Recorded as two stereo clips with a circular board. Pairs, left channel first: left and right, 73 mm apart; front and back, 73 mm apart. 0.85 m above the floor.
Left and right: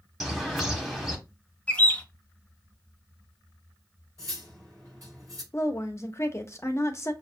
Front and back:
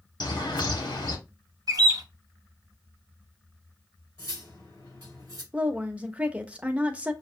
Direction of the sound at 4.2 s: 40° right.